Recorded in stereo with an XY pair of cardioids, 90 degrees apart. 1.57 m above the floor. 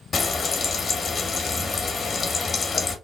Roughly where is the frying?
Ahead left.